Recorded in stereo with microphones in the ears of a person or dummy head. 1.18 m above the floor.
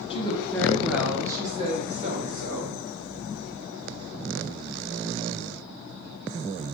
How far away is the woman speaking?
About 0.9 m.